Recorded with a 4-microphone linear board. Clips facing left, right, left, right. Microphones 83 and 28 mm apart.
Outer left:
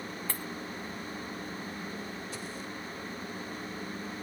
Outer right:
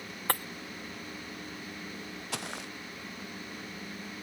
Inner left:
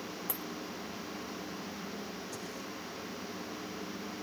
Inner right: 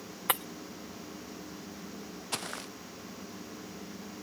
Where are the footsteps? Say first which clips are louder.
Outer right 1 dB, inner right 4 dB; 85° right.